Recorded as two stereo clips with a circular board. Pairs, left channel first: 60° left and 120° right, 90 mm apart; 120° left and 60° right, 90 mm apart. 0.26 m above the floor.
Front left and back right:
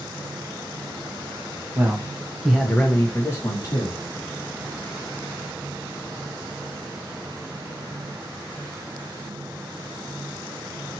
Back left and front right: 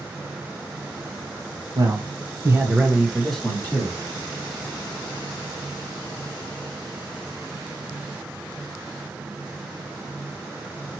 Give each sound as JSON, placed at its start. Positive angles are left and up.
{"t": 1.8, "sound": "a man speaking", "azimuth_deg": -65, "distance_m": 1.4}